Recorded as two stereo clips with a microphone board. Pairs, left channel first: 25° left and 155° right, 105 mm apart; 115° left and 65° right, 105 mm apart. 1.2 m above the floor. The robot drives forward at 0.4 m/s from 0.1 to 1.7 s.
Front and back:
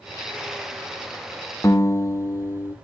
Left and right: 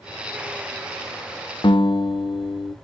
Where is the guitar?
80° left, 0.6 m; by 2.8 s 85° left, 0.6 m.